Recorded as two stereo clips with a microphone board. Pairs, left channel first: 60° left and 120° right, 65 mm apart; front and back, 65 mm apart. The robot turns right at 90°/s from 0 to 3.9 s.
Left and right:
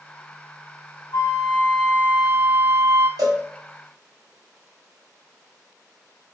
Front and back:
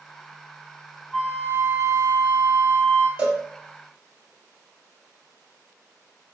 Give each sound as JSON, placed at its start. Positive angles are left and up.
{"t": 1.1, "sound": "a flute", "azimuth_deg": 85, "distance_m": 2.0}
{"t": 3.2, "sound": "a cowbell", "azimuth_deg": -110, "distance_m": 1.6}